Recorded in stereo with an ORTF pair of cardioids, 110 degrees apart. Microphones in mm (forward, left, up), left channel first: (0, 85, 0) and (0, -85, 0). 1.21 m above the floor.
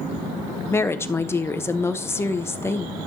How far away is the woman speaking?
About 1.0 m.